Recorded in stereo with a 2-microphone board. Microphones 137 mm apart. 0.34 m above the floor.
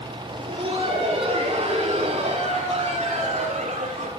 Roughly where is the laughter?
Right.